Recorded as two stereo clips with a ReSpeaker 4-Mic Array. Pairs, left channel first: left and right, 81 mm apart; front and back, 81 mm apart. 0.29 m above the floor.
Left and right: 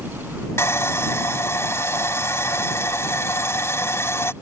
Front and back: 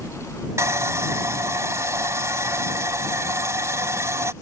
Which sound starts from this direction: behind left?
Sawing, at 0.6 s.